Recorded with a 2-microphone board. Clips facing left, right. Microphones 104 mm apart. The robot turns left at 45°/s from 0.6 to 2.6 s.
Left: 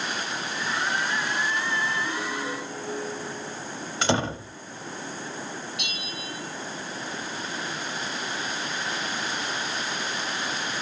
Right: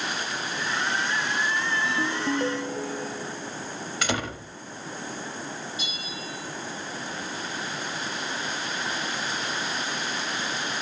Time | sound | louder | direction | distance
1.8 | a ringtone | right 2 dB | 85° right | 5 m
4.0 | a door slam | left 5 dB | 30° left (ahead or behind) | 0.9 m
5.8 | a bell | even | 70° left (ahead or behind) | 4.5 m